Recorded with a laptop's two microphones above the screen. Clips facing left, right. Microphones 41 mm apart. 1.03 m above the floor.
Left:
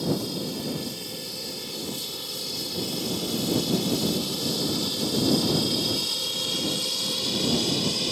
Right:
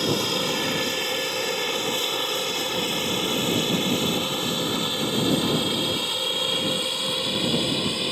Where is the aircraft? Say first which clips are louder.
Right 4 dB; 65° right (ahead or behind); by 8.1 s 25° right (ahead or behind).